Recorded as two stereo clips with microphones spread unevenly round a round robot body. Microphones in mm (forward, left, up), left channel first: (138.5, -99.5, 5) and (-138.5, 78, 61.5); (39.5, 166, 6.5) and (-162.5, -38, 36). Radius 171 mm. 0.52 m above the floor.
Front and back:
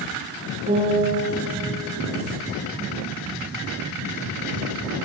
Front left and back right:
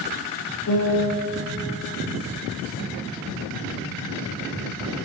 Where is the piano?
80° left, 2.5 m.